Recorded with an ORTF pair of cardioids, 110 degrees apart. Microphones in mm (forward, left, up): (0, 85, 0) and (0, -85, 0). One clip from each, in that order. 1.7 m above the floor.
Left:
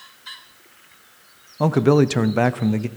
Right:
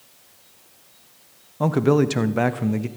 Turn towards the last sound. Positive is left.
turn(degrees=15)